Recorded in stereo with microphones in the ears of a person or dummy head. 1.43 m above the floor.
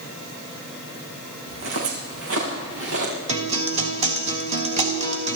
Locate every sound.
1.5 s footsteps: 70° right (ahead or behind), 5 m; by 3.1 s 75° right (ahead or behind), 6 m
3.3 s a guitar: 35° right (ahead or behind), 1.7 m